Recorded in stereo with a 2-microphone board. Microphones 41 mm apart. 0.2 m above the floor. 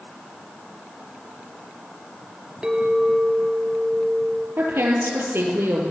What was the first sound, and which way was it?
A clink, 20° right (ahead or behind).